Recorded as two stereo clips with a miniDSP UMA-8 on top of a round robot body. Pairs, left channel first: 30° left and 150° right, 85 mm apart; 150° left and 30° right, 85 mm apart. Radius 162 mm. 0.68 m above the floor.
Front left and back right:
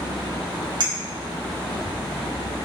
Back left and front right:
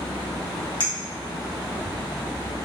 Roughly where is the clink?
Behind.